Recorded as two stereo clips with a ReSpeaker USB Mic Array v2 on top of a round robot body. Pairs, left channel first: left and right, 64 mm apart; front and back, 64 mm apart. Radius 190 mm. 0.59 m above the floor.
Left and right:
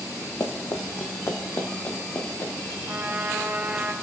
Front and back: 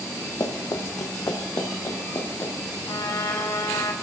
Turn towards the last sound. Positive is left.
turn(degrees=-25)